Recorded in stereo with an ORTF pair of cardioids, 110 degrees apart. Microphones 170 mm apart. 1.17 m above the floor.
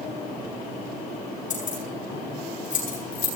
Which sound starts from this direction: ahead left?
Keys jangling, at 1.5 s.